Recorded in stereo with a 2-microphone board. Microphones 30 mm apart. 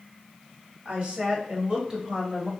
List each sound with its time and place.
0.8 s a woman speaking: 45° right (ahead or behind), 1.9 m; by 2.5 s 15° right (ahead or behind), 1.5 m